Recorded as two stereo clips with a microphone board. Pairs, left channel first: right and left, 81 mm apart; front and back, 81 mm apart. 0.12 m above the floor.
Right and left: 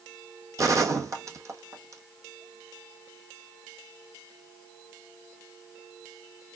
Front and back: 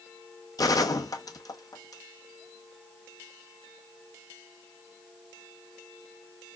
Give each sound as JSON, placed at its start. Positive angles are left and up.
{"t": 0.6, "sound": "a gunshot", "azimuth_deg": 40, "distance_m": 0.9}